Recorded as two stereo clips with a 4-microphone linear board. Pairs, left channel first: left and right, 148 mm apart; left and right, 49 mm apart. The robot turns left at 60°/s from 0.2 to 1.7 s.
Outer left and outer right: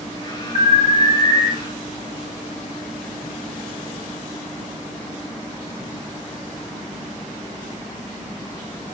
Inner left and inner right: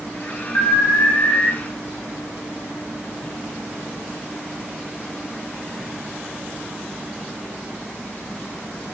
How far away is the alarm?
About 1.3 m.